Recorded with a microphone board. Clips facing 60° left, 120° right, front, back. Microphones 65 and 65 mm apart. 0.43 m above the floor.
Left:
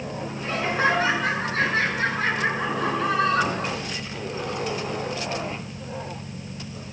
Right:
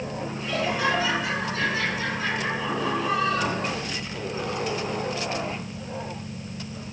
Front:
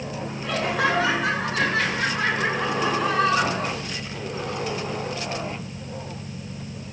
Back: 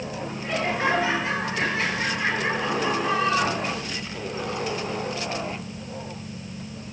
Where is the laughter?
10° left, 5.5 m; by 3.8 s 30° left, 6 m.